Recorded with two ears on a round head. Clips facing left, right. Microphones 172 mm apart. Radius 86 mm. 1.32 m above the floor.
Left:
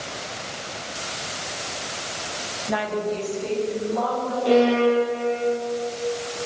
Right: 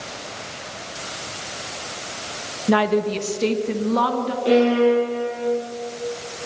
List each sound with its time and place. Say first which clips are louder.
2.7 s a woman speaking: right 7 dB; 60° right (ahead or behind), 1.5 m; by 4.3 s 80° right, 3 m
4.5 s a violin: right 2 dB; 25° right (ahead or behind), 9 m